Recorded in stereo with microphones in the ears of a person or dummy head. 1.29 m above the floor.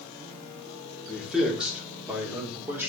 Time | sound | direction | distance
1.1 | a man speaking | centre (ahead or behind) | 4 m